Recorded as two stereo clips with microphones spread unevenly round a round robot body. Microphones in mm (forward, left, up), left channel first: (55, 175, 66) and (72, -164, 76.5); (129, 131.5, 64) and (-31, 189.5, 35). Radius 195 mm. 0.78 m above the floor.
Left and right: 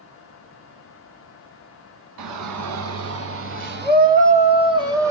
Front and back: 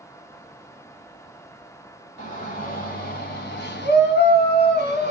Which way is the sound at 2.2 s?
85° right.